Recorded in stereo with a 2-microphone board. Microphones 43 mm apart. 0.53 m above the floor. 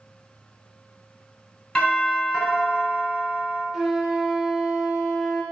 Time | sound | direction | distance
1.8 | a doorbell | 15° left (ahead or behind) | 2.5 m
3.7 | a flute | 10° right (ahead or behind) | 0.9 m